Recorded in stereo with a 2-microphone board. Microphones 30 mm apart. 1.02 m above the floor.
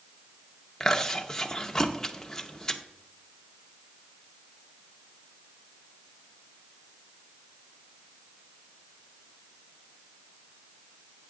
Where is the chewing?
15° left (ahead or behind), 0.9 m.